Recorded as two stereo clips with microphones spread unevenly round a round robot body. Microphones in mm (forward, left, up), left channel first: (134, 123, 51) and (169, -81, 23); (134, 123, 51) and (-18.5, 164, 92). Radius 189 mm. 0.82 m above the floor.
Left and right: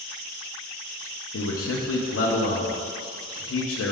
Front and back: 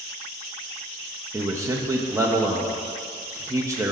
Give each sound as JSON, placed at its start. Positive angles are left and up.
{"t": 1.3, "sound": "a man speaking", "azimuth_deg": 85, "distance_m": 1.0}